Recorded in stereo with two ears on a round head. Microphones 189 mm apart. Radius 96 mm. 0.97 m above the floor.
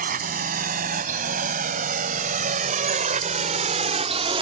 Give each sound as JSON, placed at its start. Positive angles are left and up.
{"t": 0.0, "sound": "a drone", "side_deg": -45}